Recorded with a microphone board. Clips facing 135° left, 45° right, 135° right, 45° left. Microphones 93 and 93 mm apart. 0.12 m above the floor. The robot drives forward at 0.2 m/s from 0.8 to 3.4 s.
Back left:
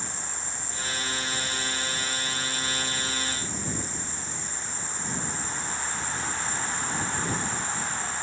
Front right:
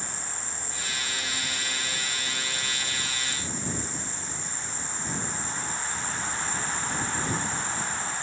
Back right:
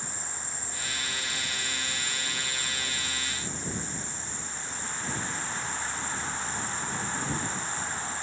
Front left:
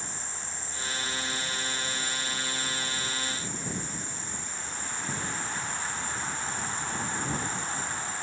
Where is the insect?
165° left, 0.7 m; by 8.2 s 175° left, 1.1 m.